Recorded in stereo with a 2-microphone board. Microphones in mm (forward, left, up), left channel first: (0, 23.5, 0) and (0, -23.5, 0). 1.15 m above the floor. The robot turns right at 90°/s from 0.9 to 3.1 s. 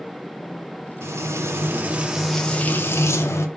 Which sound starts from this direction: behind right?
Frying, at 1.0 s.